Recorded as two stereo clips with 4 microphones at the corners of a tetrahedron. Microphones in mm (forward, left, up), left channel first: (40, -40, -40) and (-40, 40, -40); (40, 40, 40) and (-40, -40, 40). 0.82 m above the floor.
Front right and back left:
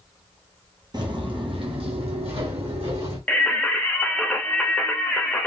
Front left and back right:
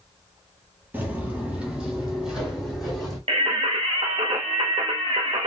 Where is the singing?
120° right, 0.8 m.